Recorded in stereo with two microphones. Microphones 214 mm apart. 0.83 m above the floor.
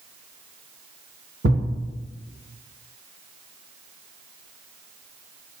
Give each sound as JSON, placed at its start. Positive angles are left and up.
{"t": 1.4, "sound": "a thud", "side_deg": -80, "distance_m": 3.0}